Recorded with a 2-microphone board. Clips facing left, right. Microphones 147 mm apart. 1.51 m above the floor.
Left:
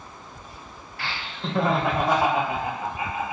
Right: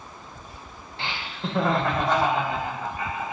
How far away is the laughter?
About 0.8 m.